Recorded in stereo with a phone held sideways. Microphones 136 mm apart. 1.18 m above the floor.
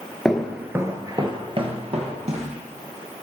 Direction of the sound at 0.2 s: 5° left (ahead or behind).